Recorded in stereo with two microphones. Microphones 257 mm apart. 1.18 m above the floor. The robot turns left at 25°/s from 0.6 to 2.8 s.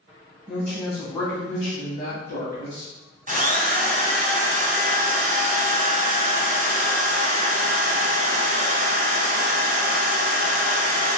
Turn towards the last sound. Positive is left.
turn(degrees=-30)  # may be behind; listen again after turning